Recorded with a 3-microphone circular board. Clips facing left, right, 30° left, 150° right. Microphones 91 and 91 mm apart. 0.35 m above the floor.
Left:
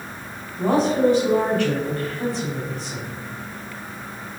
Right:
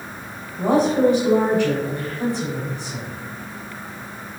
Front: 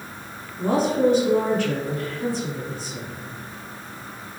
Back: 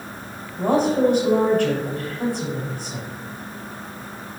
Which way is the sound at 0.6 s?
155° right.